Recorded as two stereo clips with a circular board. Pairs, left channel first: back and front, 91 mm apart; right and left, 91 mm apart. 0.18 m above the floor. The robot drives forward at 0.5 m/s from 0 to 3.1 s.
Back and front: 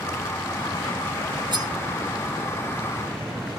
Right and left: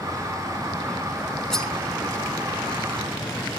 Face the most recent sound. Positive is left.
turn(degrees=-30)